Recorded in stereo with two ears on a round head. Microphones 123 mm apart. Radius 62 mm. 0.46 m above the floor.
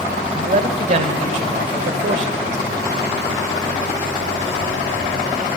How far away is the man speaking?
About 2 m.